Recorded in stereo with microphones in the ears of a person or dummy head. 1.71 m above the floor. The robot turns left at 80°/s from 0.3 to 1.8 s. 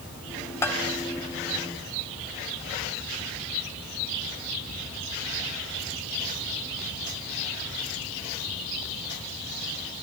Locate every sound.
0.6 s a bell: 15° left (ahead or behind), 1.9 m; by 0.8 s centre (ahead or behind), 1.9 m